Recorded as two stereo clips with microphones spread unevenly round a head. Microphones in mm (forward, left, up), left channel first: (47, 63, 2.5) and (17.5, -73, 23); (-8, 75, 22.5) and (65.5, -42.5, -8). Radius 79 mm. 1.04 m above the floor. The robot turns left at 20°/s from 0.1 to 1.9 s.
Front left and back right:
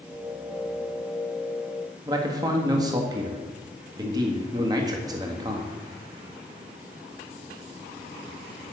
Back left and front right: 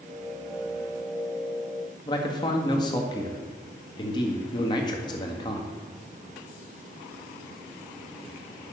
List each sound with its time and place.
2.1 s a man speaking: 170° right, 1.7 m